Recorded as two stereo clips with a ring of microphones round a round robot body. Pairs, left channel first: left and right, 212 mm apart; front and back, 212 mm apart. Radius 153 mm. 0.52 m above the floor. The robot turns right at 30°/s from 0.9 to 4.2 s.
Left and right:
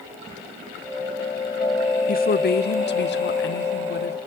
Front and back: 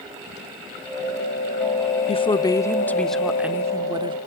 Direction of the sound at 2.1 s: 55° left.